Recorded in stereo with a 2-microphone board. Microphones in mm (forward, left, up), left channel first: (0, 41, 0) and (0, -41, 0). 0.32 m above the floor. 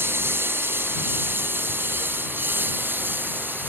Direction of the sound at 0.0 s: 25° right (ahead or behind).